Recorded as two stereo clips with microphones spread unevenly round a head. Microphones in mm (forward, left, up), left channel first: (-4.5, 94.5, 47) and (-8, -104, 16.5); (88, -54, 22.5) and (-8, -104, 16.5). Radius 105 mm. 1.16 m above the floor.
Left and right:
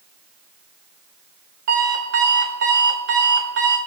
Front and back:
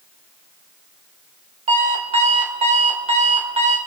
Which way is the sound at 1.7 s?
125° right.